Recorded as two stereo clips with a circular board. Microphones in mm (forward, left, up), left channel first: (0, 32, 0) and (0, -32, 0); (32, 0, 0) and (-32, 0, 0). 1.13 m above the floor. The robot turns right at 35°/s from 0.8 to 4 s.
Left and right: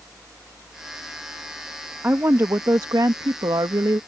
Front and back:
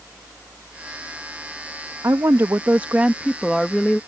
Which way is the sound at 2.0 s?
145° right.